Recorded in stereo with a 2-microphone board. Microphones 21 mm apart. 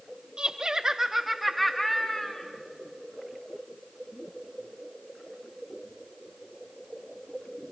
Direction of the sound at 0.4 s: 45° right (ahead or behind).